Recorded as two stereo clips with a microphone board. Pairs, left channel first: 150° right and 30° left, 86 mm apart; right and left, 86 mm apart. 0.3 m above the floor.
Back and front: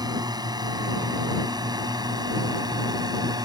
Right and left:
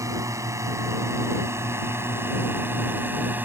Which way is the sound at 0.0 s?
50° left.